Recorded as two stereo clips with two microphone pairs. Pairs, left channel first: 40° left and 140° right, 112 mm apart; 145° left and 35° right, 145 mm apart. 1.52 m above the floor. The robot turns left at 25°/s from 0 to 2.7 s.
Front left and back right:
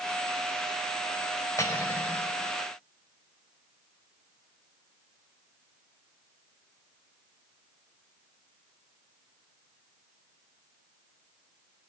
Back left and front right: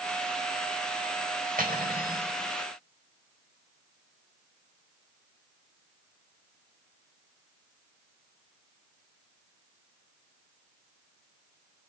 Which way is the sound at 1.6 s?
20° right.